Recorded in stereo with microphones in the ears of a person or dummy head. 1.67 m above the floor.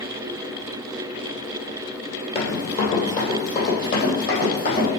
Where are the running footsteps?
30° left (ahead or behind), 2 m; by 4.9 s 55° left (ahead or behind), 5 m.